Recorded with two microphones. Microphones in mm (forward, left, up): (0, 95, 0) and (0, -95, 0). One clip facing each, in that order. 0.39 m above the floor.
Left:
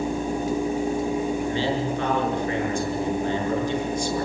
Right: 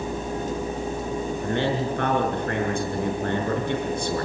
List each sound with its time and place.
1.4 s a man speaking: 60° right (ahead or behind), 7 m